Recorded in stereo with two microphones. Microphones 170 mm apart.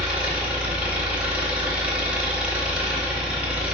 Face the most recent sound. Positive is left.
turn(degrees=-5)  # may be behind; listen again after turning